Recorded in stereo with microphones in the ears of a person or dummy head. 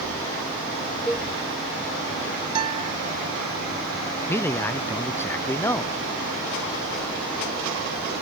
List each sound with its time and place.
1.1 s a cowbell: 5° left (ahead or behind)
2.5 s a guitar: 25° right (ahead or behind)
4.3 s a man speaking: 10° left (ahead or behind)